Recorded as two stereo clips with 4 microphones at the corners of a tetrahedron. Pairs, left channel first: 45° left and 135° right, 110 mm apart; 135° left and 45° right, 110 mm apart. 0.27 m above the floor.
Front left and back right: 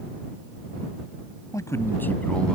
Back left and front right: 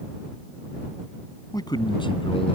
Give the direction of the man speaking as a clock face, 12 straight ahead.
9 o'clock.